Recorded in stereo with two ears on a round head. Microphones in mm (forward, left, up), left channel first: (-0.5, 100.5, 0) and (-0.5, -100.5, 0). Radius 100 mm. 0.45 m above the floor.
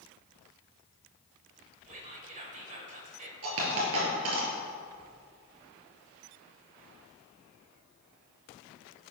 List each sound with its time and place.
1.9 s whispering: 35° right (ahead or behind), 2 m
3.4 s a dropped coin: 70° right (ahead or behind), 3.5 m